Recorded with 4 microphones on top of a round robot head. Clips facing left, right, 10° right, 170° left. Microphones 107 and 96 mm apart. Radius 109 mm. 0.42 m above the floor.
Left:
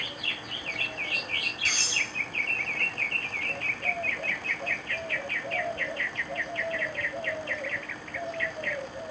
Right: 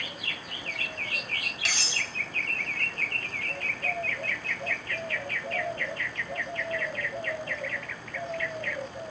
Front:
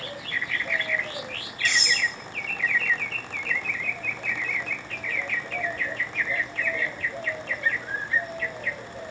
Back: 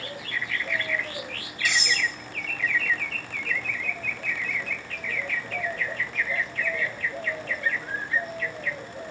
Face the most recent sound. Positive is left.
turn(degrees=-105)